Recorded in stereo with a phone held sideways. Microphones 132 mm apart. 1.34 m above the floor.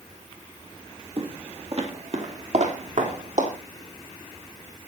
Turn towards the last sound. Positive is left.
turn(degrees=-65)  # may be behind; listen again after turning